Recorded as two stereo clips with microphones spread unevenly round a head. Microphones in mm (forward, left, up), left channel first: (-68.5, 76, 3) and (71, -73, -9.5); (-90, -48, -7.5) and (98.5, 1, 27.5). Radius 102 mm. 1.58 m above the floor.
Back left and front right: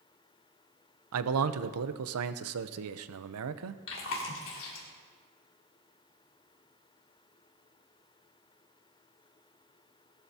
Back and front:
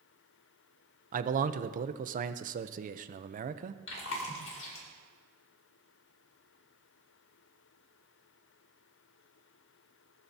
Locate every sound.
1.1 s a man speaking: 30° right, 0.7 m
3.9 s chewing: 160° left, 2.5 m